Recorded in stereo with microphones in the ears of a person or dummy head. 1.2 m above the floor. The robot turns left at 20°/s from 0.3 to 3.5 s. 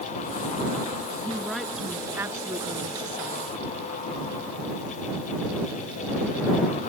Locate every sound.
1.2 s a woman speaking: 10° left; by 3.5 s 35° right